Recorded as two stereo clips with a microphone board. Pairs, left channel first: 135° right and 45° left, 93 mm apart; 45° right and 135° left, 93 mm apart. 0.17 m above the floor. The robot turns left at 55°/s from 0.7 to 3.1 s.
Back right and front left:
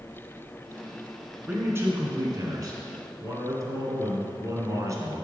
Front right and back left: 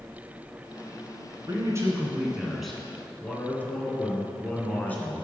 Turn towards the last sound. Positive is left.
turn(degrees=20)